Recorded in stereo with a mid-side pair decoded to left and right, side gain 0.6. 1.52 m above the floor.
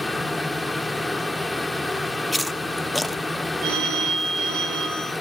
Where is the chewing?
5° left, 1.0 m.